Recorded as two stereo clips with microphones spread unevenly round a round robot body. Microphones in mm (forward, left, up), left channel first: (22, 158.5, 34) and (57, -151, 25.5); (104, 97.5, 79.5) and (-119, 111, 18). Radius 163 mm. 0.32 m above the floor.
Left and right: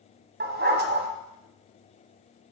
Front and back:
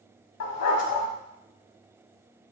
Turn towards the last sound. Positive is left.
turn(degrees=-25)